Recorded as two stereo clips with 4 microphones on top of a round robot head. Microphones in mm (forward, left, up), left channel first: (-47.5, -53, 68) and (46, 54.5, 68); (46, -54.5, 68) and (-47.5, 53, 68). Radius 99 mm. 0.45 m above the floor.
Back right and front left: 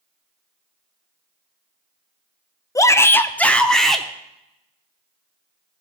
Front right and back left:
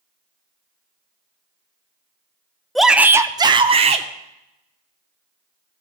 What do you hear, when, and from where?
2.8 s a shout: 135° right, 0.7 m; by 4.1 s 140° left, 1.0 m